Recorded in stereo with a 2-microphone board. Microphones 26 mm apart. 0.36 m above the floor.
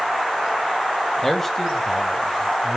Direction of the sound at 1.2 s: 15° left (ahead or behind).